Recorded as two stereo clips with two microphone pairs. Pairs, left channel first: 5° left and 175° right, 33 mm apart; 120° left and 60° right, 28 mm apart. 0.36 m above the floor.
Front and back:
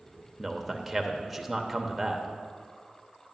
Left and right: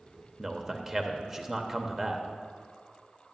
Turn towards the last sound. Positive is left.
turn(degrees=-105)